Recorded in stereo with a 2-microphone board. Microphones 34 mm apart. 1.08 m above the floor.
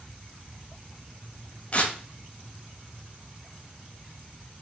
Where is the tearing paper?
40° left (ahead or behind), 1.2 m.